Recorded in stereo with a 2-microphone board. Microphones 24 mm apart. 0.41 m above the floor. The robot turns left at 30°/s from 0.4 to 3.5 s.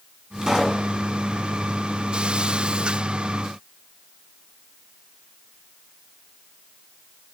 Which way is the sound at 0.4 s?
30° right (ahead or behind).